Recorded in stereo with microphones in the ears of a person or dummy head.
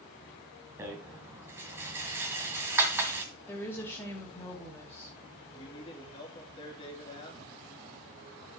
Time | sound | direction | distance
0.8 | a rattle | 15° right (ahead or behind) | 1.8 m
3.5 | a woman speaking | 10° left (ahead or behind) | 2.5 m
5.5 | a man speaking | 25° left (ahead or behind) | 3 m